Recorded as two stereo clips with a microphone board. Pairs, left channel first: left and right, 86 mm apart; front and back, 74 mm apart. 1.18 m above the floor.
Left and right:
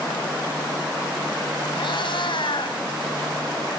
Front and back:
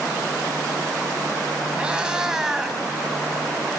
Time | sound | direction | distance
1.8 | a cat meowing | 105° left | 3 m